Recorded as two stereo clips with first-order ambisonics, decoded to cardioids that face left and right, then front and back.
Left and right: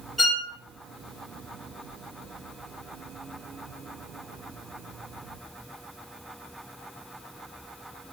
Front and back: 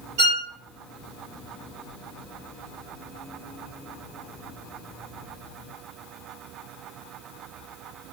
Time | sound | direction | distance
0.2 | a violin | straight behind | 1.3 m